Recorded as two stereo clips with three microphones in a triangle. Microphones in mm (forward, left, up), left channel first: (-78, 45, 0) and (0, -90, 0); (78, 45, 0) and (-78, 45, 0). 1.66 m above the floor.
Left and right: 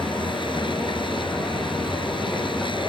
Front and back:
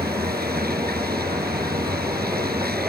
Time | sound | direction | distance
0.0 | a vehicle | straight behind | ?